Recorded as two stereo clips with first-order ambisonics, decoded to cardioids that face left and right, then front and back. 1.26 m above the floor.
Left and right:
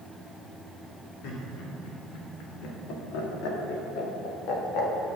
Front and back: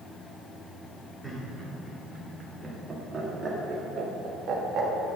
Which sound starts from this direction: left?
Laughter, at 1.2 s.